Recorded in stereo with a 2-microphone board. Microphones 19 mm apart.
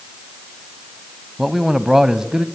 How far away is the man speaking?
About 1.0 m.